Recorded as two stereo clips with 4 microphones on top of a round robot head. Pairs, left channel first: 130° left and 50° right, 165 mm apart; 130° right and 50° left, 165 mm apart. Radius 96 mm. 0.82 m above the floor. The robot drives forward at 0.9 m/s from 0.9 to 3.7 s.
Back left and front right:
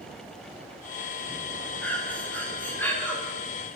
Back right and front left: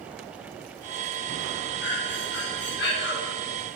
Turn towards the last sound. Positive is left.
turn(degrees=-150)